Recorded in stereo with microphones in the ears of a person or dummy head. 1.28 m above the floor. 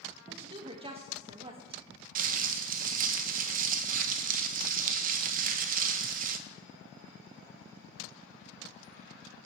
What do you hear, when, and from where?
0.3 s a woman speaking: 30° right (ahead or behind), 1.8 m
2.1 s crumpling: 50° right (ahead or behind), 1.1 m